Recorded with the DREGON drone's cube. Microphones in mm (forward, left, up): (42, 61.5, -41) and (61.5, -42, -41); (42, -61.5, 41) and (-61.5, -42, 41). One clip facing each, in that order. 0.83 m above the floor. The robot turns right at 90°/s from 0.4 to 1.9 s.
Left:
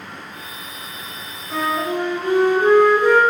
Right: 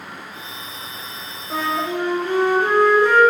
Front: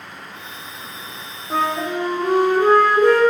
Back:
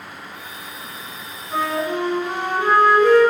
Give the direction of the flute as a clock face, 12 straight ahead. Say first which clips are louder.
Left 1 dB, front 1 dB; 12 o'clock.